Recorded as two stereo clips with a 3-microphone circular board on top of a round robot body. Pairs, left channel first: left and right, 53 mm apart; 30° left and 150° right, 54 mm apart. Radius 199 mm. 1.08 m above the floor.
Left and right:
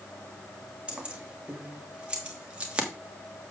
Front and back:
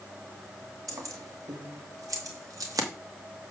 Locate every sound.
0.9 s keys jangling: 160° right, 1.6 m